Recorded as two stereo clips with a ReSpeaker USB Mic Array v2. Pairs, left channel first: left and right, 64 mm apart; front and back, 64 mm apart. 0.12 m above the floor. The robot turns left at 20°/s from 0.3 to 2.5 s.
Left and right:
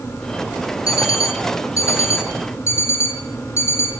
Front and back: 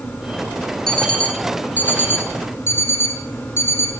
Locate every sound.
0.9 s an alarm clock: 80° left, 2 m; by 3.9 s 45° left, 2 m